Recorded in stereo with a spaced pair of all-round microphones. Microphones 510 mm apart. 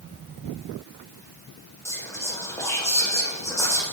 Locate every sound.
1.9 s whispering: 5° left (ahead or behind), 0.5 m